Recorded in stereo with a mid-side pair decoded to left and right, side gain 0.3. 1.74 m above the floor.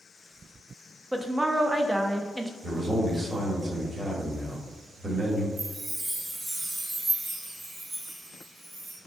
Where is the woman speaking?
20° right, 0.5 m.